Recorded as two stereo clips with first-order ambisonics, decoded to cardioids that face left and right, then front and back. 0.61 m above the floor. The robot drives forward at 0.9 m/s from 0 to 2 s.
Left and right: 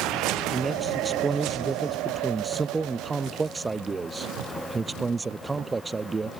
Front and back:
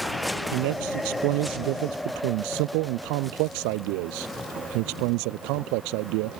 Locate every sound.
0.5 s a man speaking: 165° right